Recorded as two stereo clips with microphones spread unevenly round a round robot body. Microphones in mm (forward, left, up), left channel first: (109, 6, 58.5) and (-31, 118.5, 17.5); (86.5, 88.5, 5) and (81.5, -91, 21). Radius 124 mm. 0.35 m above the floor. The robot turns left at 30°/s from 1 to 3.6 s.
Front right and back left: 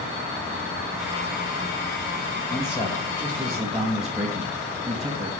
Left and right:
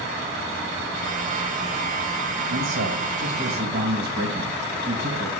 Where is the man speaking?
105° right, 2.5 m; by 5.3 s 135° right, 2.5 m.